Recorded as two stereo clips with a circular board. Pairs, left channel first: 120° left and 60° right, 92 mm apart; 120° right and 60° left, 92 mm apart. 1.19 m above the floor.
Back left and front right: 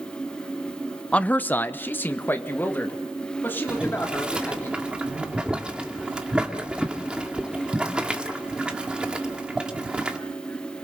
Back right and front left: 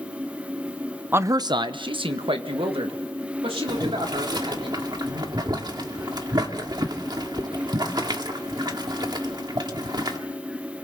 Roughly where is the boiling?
Ahead.